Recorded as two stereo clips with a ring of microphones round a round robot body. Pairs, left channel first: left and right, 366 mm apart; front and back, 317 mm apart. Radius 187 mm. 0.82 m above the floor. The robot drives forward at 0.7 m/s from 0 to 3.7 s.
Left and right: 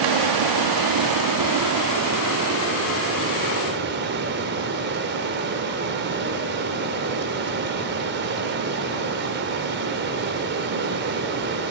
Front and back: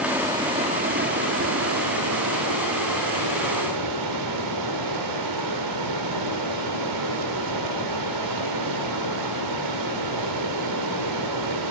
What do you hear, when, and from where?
0.0 s running water: 95° right, 1.6 m; by 11.7 s 150° right, 3 m